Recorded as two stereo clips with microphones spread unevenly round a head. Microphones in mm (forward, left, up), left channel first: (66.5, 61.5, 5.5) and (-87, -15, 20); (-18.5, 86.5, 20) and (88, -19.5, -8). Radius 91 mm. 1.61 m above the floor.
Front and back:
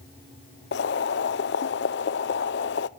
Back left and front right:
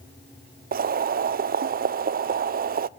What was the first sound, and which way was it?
Boiling, 10° right.